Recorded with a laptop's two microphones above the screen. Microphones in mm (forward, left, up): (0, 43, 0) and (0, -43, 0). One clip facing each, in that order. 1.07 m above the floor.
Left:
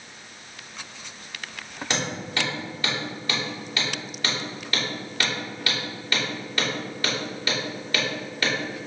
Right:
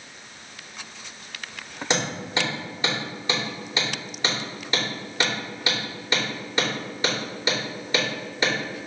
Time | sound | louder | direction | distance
1.9 | hammering | right 3 dB | 20° right (ahead or behind) | 3 m